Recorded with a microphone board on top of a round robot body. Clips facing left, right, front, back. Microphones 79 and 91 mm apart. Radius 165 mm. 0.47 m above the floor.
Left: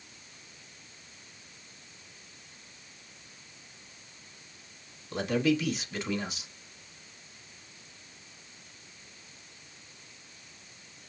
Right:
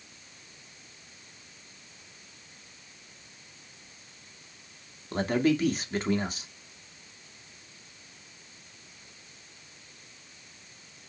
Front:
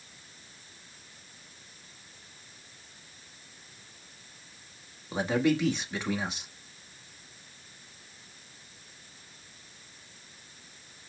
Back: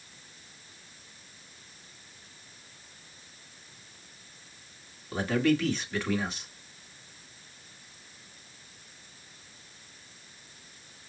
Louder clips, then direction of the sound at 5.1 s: Right 2 dB, even; 65° right.